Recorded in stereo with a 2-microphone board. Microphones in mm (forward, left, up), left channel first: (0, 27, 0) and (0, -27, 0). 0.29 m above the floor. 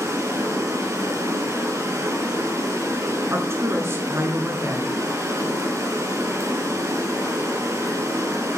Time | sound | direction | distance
0.0 | running water | 75° right (ahead or behind) | 6.5 m
3.3 | a woman speaking | 50° right (ahead or behind) | 4 m